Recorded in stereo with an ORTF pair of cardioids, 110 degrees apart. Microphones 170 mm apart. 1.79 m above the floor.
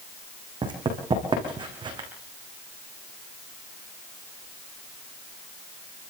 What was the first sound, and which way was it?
Running footsteps, 30° right.